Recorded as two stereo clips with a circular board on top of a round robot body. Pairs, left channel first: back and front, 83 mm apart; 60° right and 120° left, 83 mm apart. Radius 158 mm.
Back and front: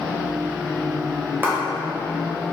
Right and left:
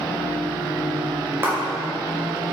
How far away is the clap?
About 1.9 m.